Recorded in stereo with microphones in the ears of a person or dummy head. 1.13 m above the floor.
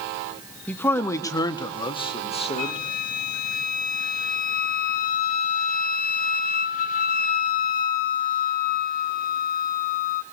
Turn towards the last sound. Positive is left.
turn(degrees=50)  # may be behind; listen again after turning